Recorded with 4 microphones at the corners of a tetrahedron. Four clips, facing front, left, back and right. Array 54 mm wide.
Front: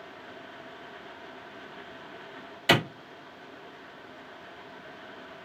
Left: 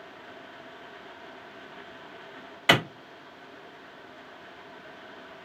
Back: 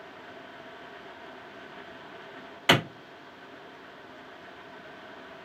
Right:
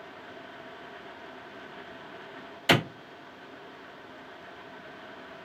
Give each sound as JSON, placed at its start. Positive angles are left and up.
{"t": 2.7, "sound": "a clap", "azimuth_deg": 130, "distance_m": 1.6}